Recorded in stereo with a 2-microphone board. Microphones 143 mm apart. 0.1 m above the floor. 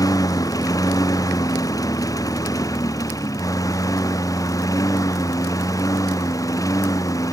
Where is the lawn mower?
25° left (ahead or behind).